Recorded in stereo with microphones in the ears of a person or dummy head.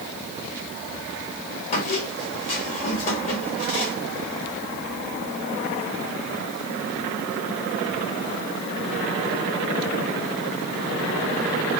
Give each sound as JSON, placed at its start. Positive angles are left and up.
{"t": 1.7, "sound": "a squeak", "side_deg": 35, "distance_m": 1.5}